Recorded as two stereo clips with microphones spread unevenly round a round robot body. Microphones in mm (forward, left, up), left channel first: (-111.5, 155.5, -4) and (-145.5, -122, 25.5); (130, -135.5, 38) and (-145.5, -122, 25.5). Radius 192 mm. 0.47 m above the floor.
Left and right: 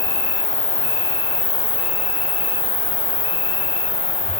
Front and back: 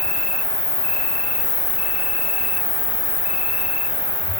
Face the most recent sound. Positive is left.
turn(degrees=55)